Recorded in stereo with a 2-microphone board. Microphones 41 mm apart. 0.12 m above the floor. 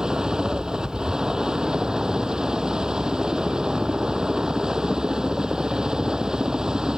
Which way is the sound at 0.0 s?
20° right (ahead or behind).